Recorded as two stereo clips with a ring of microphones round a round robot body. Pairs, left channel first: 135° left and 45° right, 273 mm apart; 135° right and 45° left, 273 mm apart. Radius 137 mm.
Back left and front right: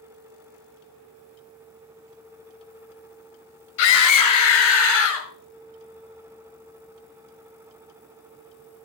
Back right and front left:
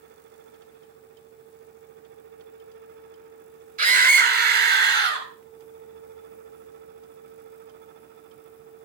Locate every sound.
3.8 s a scream: 105° left, 4.5 m; by 5.3 s 95° left, 4.5 m